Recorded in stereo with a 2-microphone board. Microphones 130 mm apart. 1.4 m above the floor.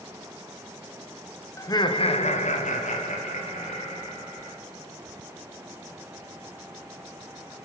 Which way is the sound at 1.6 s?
25° left (ahead or behind).